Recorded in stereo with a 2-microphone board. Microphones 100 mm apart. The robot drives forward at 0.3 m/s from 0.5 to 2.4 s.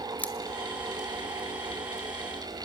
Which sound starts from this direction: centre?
Scissors, at 0.2 s.